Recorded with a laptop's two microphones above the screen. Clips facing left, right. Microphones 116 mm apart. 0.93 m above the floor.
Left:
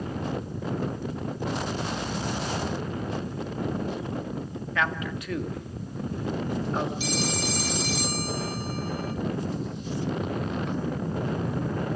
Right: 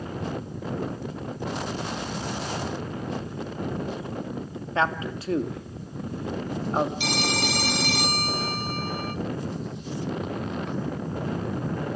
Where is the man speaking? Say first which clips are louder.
Right 4 dB; 30° right (ahead or behind), 2 m.